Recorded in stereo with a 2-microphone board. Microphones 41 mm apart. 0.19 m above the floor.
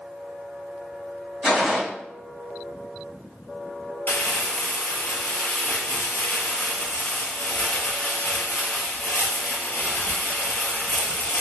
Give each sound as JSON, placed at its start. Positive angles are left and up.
{"t": 1.4, "sound": "a gunshot", "side_deg": 0, "distance_m": 1.7}
{"t": 4.1, "sound": "crumpling", "side_deg": 65, "distance_m": 0.6}